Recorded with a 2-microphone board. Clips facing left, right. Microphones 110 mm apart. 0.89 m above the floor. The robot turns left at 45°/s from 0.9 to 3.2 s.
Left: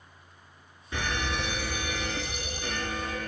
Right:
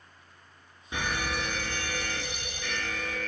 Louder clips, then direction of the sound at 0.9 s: Even; 160° right.